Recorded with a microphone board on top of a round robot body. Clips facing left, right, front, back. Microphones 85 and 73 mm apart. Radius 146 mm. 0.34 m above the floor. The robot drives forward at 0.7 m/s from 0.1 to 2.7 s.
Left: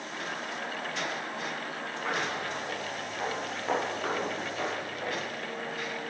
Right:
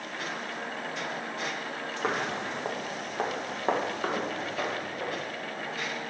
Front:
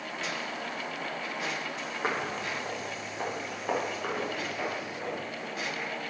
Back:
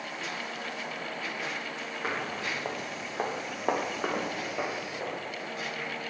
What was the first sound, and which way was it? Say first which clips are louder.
Footsteps: right 2 dB, front 1 dB; 70° right.